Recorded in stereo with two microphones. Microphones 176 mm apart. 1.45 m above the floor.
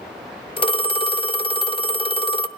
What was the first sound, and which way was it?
A phone ringing, 30° left (ahead or behind).